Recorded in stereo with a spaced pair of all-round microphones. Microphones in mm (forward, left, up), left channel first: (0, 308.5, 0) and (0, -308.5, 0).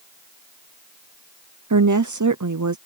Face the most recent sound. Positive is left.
turn(degrees=-30)  # may be behind; listen again after turning